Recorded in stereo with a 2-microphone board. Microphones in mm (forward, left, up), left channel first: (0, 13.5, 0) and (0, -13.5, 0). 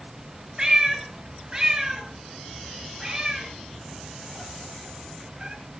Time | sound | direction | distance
0.6 | a cat meowing | 30° right (ahead or behind) | 3.5 m